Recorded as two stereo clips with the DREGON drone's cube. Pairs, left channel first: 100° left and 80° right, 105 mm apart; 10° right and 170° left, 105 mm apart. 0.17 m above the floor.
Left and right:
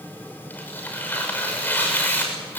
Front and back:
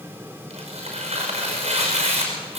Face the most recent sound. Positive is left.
turn(degrees=175)